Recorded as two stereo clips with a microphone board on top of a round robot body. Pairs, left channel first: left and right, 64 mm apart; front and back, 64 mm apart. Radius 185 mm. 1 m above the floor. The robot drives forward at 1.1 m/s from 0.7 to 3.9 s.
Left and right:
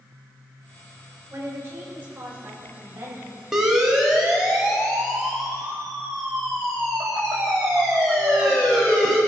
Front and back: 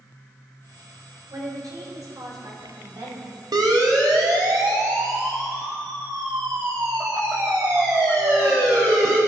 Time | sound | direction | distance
1.3 | a woman speaking | 145° right | 4 m
3.5 | a siren | 175° right | 2.5 m